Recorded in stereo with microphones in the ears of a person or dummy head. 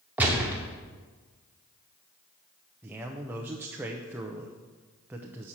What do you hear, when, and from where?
0.2 s a gunshot: 5° right (ahead or behind), 0.8 m
2.8 s a man speaking: 15° right (ahead or behind), 0.6 m